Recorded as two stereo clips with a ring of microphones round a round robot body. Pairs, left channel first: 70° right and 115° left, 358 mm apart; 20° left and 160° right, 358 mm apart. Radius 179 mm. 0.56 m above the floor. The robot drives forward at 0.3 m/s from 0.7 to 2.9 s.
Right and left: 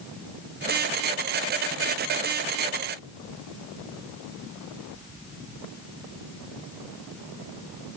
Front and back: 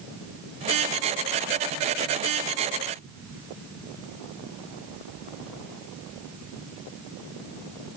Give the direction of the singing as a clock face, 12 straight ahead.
I don't hear singing.